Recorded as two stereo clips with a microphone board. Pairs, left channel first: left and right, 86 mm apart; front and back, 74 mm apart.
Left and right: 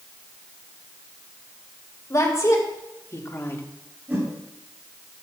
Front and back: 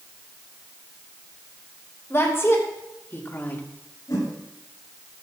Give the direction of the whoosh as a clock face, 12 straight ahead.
1 o'clock.